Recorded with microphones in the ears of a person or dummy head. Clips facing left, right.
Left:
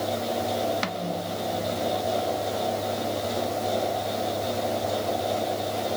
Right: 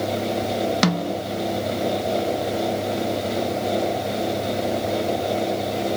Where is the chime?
I don't hear a chime.